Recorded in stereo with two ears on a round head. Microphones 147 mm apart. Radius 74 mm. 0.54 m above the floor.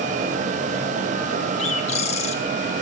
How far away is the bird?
About 2.5 m.